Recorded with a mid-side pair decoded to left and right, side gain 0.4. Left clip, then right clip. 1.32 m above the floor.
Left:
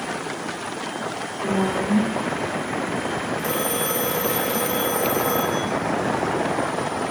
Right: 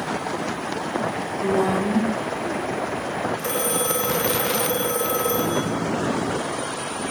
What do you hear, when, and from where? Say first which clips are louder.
1.4 s a woman speaking: right 2 dB; 45° right, 3 m
3.4 s a phone ringing: even; 40° right, 3 m